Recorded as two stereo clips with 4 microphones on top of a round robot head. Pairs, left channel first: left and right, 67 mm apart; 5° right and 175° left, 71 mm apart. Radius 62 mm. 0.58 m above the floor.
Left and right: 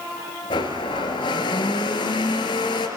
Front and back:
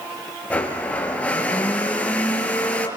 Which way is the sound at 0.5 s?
70° left.